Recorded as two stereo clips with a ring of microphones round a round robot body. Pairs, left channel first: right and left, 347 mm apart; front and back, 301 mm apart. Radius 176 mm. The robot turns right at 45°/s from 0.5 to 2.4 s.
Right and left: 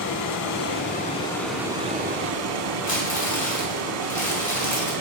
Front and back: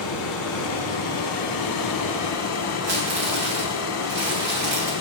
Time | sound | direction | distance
0.0 | running water | 45° right | 0.9 m
2.8 | crumpling | 155° right | 3 m